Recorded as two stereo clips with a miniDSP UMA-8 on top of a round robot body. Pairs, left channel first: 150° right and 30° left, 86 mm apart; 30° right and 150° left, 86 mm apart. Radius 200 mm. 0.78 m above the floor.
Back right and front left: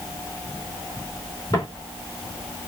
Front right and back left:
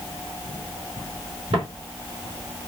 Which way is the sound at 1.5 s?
155° left.